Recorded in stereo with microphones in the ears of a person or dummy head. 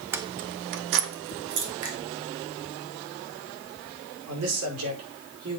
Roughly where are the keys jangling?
Centre.